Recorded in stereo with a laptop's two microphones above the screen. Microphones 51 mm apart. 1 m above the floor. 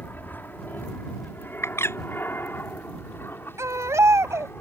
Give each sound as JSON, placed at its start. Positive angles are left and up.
{"t": 0.0, "sound": "an aircraft", "side_deg": 35}
{"t": 1.6, "sound": "a bird", "side_deg": 50}
{"t": 3.6, "sound": "a baby crying", "side_deg": -70}